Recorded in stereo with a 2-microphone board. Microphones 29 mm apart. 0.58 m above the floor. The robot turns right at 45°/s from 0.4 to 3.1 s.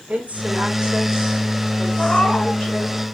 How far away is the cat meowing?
About 1.4 m.